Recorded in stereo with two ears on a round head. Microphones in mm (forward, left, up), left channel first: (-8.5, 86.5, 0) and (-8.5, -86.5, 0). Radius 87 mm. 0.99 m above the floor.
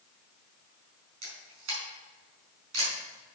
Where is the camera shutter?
75° right (ahead or behind), 4.5 m.